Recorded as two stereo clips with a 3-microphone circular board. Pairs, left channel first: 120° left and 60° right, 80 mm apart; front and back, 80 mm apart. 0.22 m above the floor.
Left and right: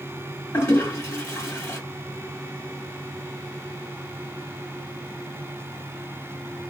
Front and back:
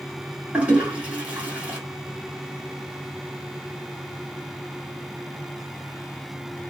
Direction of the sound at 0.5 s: 125° left.